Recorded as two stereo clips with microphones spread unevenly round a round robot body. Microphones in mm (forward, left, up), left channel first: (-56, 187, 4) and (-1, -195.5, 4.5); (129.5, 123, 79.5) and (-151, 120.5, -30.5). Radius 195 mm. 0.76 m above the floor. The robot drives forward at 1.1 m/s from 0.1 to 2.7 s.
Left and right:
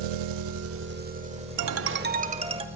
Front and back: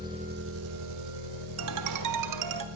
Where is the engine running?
105° right, 0.8 m; by 2.8 s 165° right, 3 m.